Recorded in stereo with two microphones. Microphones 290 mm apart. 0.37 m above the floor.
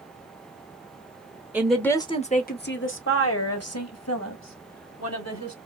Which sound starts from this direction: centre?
A woman speaking, at 1.5 s.